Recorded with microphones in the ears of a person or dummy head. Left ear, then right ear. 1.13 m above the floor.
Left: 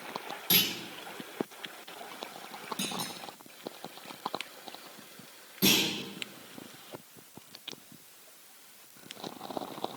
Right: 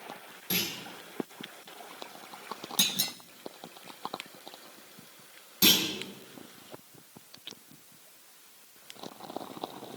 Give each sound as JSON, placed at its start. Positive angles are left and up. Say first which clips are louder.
{"t": 0.5, "sound": "a clunk", "louder": "left 5 dB", "side_deg": 15, "distance_m": 1.9}
{"t": 2.8, "sound": "a clunk", "louder": "right 9 dB", "side_deg": -40, "distance_m": 0.8}
{"t": 5.6, "sound": "a clunk", "louder": "right 2 dB", "side_deg": -30, "distance_m": 4.0}